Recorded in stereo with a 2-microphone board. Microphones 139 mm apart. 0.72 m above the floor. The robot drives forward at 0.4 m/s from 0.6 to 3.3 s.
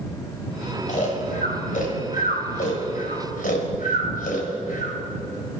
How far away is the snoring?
About 3 m.